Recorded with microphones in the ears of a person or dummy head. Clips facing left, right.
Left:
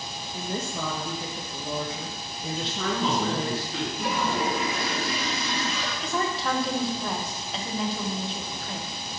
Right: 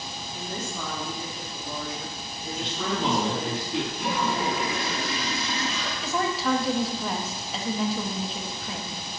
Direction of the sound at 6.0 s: Centre (ahead or behind).